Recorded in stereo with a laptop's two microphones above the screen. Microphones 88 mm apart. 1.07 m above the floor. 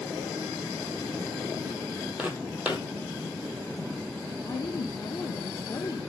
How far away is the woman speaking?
About 0.6 m.